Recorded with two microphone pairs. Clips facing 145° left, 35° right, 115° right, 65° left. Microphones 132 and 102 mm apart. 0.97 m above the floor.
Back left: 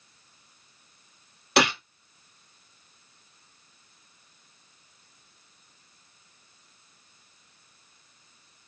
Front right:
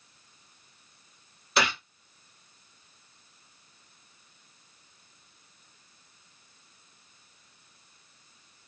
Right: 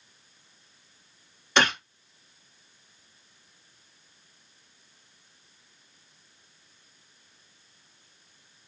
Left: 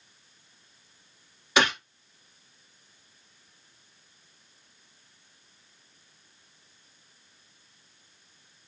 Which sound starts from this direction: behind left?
A gunshot, at 1.6 s.